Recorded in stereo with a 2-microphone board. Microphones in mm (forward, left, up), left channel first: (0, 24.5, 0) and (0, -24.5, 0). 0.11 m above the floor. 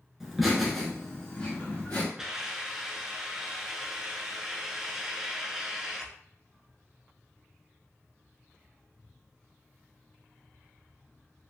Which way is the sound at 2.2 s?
15° right (ahead or behind).